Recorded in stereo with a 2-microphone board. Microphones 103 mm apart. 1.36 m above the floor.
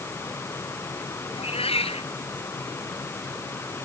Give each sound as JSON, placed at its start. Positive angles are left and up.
{"t": 1.3, "sound": "a cat meowing", "side_deg": 65}